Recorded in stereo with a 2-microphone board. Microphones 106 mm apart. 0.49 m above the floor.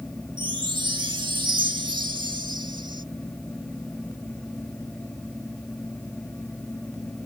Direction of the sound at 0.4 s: 45° right (ahead or behind).